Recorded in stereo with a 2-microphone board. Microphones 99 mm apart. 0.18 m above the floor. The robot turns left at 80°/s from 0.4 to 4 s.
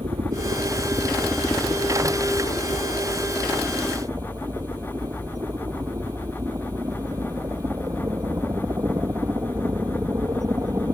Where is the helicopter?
105° right; by 10.9 s 35° right.